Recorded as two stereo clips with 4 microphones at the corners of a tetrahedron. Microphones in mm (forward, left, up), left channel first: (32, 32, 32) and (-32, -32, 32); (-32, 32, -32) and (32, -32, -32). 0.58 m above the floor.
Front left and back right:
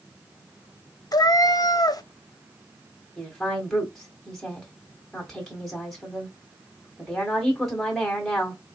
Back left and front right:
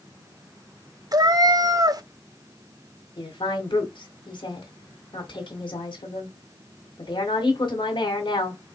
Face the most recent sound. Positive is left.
turn(degrees=130)